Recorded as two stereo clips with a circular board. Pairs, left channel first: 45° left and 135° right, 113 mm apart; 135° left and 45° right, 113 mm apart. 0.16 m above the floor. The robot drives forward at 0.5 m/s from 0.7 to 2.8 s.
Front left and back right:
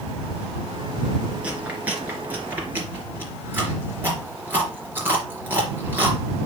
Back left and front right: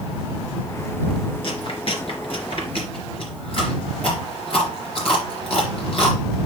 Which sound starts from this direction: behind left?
Chewing, at 1.4 s.